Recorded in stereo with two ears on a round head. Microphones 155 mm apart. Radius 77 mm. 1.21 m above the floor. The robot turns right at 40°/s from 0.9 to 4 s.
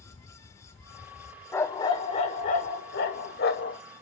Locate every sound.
1.5 s a dog barking: 15° left, 1.5 m; by 3.8 s 105° left, 1.5 m